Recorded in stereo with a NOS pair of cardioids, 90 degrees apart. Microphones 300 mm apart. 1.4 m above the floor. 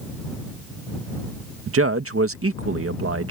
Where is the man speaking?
45° right.